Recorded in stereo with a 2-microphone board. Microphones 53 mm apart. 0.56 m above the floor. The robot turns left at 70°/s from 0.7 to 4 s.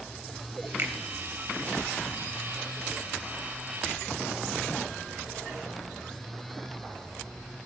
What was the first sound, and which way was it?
A finger snap, 40° right (ahead or behind).